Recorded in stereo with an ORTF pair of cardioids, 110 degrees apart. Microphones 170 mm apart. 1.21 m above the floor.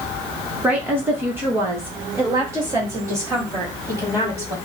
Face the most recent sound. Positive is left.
turn(degrees=-20)